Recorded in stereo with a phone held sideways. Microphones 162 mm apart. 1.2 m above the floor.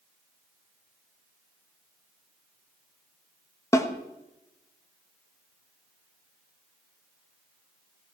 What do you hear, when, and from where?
3.7 s a snare drum: 20° left (ahead or behind), 1.2 m